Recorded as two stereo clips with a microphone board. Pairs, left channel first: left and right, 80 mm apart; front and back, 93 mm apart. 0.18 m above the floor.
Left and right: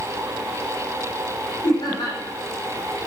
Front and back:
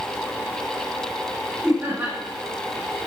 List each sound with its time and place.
1.6 s laughter: 105° left, 8 m